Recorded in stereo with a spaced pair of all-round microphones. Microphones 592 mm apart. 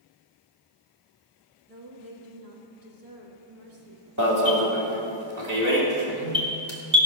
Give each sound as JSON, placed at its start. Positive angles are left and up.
{"t": 1.7, "sound": "a woman speaking", "side_deg": -65, "distance_m": 2.0}
{"t": 4.2, "sound": "an alarm", "side_deg": -30, "distance_m": 2.5}